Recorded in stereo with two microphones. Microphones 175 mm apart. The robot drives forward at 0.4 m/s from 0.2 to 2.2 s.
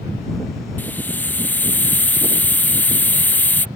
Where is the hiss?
10° left (ahead or behind).